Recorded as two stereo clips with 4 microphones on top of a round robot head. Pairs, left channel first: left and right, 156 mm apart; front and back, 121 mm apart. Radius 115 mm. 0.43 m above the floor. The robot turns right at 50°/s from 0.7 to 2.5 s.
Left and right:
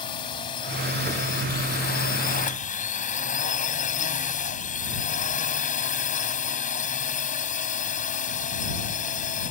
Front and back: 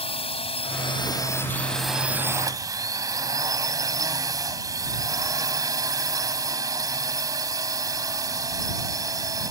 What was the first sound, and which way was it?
A drone, 30° left.